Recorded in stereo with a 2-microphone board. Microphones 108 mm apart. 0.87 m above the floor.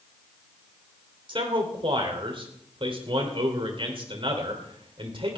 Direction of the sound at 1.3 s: 55° right (ahead or behind).